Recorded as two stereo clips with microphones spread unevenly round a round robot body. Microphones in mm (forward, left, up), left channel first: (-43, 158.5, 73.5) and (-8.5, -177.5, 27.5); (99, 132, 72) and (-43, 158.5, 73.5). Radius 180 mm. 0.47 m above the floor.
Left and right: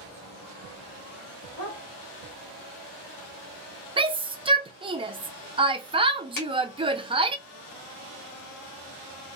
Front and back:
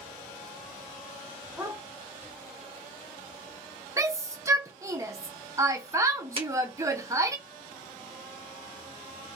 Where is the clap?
120° left, 2.0 m.